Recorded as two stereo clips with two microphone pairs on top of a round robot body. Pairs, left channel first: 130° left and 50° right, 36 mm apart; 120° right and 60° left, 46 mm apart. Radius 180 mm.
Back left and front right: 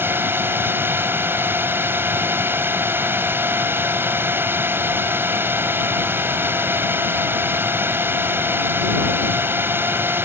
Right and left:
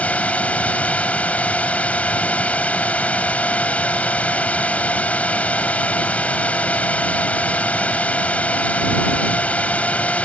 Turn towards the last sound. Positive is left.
turn(degrees=-55)